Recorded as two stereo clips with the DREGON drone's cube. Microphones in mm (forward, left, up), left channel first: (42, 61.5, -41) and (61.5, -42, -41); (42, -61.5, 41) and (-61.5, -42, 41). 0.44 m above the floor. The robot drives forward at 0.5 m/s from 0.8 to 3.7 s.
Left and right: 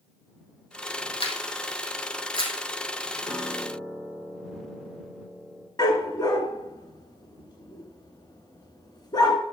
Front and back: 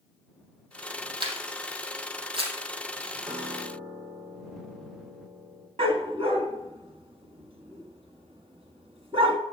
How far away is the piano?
About 2.5 m.